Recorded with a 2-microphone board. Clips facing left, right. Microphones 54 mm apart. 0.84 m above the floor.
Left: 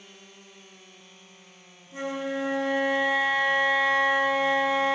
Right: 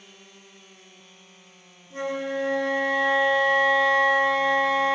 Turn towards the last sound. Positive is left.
turn(degrees=5)  # may be behind; listen again after turning